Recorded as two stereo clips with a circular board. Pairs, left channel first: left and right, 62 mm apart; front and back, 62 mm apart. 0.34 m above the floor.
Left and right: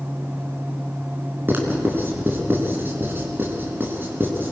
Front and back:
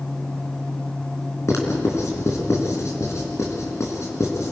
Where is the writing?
35° right, 4 m.